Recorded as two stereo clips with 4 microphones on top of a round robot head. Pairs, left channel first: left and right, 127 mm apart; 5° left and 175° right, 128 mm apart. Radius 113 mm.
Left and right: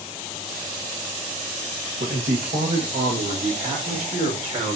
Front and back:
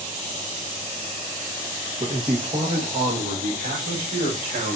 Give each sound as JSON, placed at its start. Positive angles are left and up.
{"t": 2.0, "sound": "a man speaking", "azimuth_deg": -115, "distance_m": 1.2}